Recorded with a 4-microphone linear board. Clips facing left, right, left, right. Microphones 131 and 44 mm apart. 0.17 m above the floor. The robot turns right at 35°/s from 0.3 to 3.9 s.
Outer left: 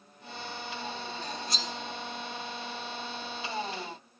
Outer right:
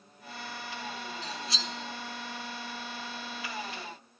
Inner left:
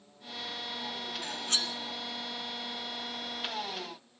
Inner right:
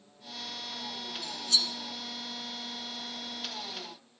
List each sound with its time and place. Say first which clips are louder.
1.2 s cutlery clinking: outer left 1 dB, inner right 3 dB; 50° left (ahead or behind), 1.2 m; by 1.7 s 40° left (ahead or behind), 1.2 m